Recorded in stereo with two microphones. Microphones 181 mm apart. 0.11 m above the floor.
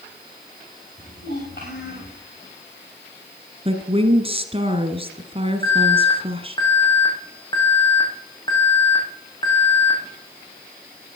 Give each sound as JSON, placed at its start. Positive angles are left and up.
{"t": 1.0, "sound": "a child speaking", "side_deg": 70, "distance_m": 6.5}
{"t": 3.6, "sound": "a woman speaking", "side_deg": -30, "distance_m": 1.7}
{"t": 5.6, "sound": "an alarm", "side_deg": 25, "distance_m": 5.0}